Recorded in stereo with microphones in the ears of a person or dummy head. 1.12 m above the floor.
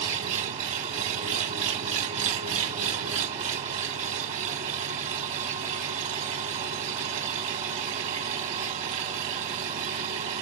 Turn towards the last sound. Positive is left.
turn(degrees=-40)  # may be behind; listen again after turning